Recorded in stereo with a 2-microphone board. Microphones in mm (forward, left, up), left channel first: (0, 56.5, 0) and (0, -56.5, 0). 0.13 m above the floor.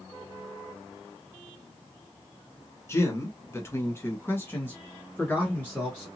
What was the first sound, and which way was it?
A man speaking, 25° left (ahead or behind).